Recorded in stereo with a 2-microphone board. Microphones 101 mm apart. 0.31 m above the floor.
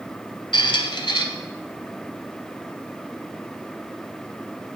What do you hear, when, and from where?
0.5 s a squeak: 55° left (ahead or behind), 0.7 m